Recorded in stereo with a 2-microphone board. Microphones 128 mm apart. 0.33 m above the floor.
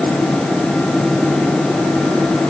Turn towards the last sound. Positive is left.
No sound to turn to.